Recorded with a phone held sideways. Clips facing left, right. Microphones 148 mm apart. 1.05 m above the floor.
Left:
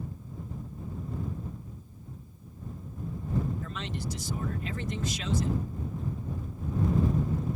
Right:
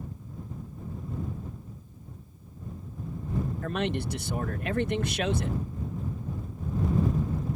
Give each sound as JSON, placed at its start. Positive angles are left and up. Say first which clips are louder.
{"t": 3.6, "sound": "a man speaking", "louder": "right 7 dB", "side_deg": -65}